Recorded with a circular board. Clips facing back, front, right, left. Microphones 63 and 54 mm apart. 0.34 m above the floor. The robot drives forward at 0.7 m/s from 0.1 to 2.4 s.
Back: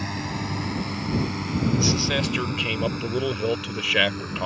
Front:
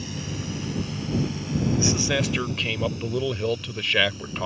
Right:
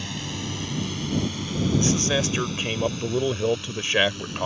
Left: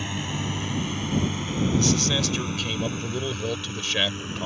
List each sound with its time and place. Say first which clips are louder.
0.0 s a drone: back 4 dB, left 2 dB; 155° left
1.8 s a man speaking: even, right 2 dB; 55° right; by 4.5 s 100° right